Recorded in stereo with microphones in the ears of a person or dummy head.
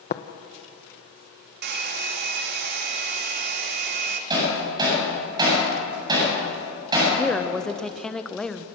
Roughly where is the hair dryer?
Right.